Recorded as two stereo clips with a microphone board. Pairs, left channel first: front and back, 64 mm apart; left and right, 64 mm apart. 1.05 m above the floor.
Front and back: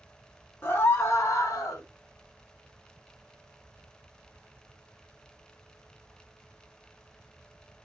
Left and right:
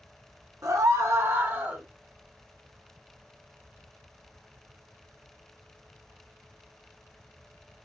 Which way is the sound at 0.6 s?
60° right.